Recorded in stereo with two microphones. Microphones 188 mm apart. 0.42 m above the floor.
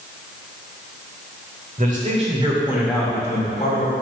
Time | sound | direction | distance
1.8 | a man speaking | 45° right (ahead or behind) | 1.9 m